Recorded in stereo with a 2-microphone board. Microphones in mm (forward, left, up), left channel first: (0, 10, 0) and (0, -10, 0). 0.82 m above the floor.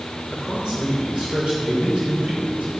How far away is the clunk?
No clunk in this recording.